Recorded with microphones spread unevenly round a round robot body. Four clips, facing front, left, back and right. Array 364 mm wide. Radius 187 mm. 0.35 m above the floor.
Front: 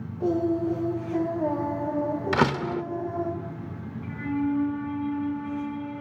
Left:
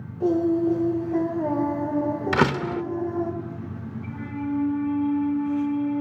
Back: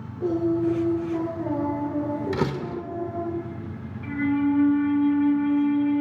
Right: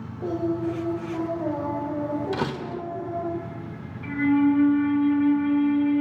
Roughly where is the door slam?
Behind left.